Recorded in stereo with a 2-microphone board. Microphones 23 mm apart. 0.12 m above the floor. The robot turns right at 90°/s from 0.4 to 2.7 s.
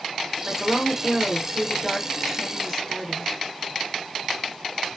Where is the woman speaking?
25° right (ahead or behind), 1.8 m; by 3.3 s 20° left (ahead or behind), 1.8 m.